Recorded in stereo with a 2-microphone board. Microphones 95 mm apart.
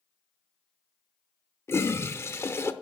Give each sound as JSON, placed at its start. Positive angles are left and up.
{"t": 1.7, "sound": "a toilet flushing", "side_deg": 25, "distance_m": 0.6}